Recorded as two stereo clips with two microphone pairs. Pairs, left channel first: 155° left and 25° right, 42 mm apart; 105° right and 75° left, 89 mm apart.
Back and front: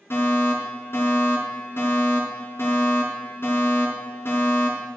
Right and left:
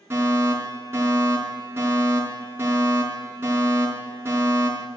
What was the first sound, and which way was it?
A fire alarm, 135° left.